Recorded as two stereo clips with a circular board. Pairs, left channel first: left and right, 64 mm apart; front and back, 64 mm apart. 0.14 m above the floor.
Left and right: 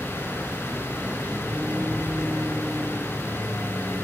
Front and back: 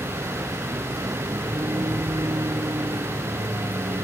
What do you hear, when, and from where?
0.0 s a vehicle: 165° right; by 4.0 s 170° right